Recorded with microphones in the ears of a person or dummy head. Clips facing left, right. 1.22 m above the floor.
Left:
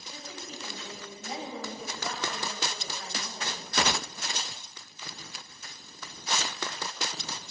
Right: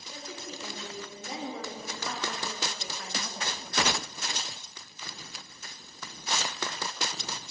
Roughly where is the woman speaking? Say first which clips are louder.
Right 2 dB; right.